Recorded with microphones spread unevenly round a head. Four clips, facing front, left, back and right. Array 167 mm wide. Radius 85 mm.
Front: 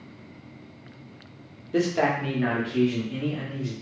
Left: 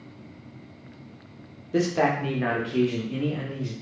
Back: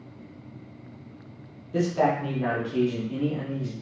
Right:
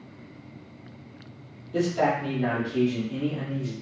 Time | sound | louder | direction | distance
1.7 | a man speaking | left 1 dB, even | 50° left | 0.8 m